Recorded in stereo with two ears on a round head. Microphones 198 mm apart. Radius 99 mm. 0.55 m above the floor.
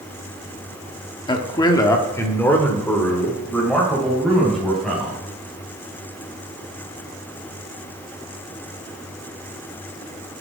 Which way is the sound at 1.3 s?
20° left (ahead or behind).